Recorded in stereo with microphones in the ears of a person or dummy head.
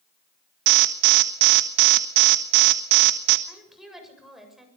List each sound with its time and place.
0.7 s an alarm: 65° right (ahead or behind), 1.4 m
3.5 s a woman speaking: 5° right (ahead or behind), 7 m